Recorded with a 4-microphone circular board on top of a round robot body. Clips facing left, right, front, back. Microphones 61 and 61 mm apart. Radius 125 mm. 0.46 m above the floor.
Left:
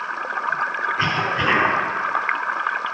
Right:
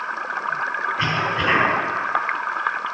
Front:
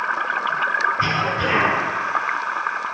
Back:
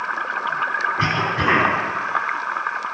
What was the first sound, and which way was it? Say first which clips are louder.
A cough: left 1 dB, even; 165° left.